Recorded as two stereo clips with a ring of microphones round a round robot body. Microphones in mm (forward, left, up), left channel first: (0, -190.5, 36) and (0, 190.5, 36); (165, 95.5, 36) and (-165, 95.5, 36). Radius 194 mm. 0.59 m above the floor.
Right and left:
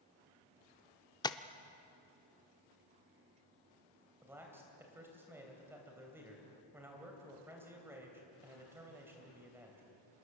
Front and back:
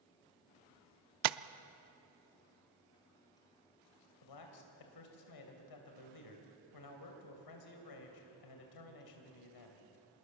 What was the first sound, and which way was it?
Tapping, 170° right.